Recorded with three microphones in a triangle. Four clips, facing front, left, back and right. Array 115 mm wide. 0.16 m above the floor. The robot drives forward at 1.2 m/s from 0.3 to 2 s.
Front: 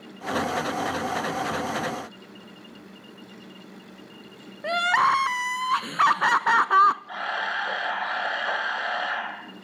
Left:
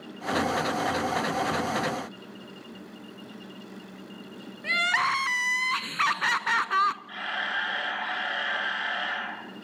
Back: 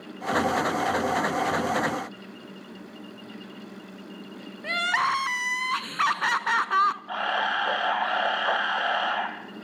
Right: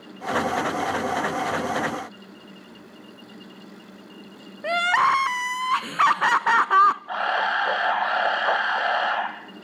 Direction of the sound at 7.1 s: 110° right.